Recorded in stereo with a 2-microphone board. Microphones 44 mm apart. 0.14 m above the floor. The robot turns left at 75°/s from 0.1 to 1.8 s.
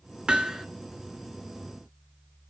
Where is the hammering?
25° right (ahead or behind), 1.0 m; by 0.7 s 5° right (ahead or behind), 1.0 m.